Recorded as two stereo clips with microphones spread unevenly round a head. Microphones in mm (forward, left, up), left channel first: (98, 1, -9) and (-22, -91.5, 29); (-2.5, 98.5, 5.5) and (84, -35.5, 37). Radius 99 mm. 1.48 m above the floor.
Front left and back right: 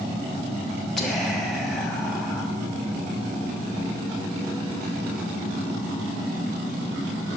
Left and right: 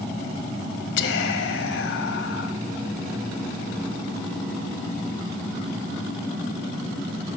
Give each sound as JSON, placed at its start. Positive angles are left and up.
{"t": 1.0, "sound": "whispering", "azimuth_deg": 130, "distance_m": 1.2}